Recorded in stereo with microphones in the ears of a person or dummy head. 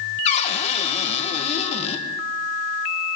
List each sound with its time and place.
0.2 s a cupboard door: 35° left (ahead or behind), 1.4 m